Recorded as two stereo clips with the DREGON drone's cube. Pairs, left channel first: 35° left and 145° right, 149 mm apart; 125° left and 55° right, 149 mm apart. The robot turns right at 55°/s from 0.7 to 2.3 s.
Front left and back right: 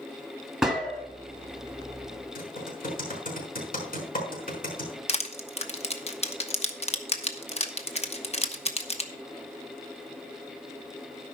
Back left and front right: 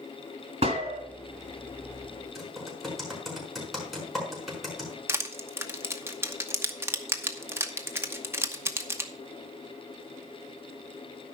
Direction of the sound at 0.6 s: 60° right.